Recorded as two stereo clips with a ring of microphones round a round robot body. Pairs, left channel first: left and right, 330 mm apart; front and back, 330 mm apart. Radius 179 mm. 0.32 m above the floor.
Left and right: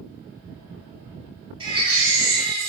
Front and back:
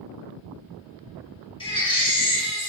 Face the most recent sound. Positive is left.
turn(degrees=-45)